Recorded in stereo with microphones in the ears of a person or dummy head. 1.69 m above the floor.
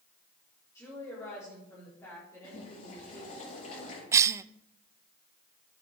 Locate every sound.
0.8 s a woman speaking: 20° left (ahead or behind), 5 m
2.4 s boiling: 45° left (ahead or behind), 8 m
4.1 s a cough: 15° right (ahead or behind), 0.5 m